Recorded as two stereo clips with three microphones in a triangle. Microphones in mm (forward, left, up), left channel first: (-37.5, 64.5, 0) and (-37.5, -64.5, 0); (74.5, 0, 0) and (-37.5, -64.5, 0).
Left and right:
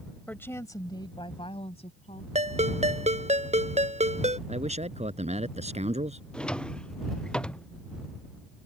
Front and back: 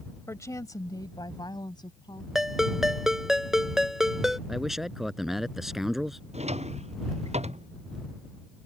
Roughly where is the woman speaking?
Ahead left.